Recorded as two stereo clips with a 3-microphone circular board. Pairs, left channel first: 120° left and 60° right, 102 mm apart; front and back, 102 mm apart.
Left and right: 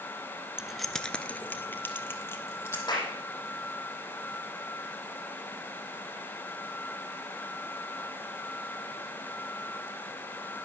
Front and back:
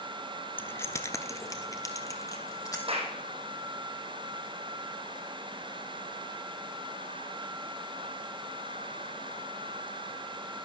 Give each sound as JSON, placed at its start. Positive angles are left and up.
{"t": 0.6, "sound": "keys jangling", "azimuth_deg": 5, "distance_m": 0.7}
{"t": 2.9, "sound": "a clap", "azimuth_deg": 165, "distance_m": 4.5}